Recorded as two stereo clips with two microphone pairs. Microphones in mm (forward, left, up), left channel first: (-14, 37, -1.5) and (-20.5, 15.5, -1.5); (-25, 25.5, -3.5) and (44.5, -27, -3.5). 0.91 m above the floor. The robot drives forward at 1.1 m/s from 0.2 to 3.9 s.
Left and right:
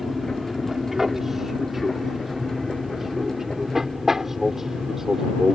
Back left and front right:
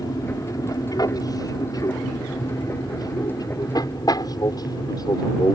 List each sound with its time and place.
0.0 s an aircraft: 175° left